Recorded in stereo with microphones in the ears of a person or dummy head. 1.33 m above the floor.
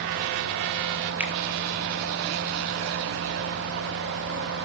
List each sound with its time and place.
1.2 s a finger snap: 10° right (ahead or behind), 2 m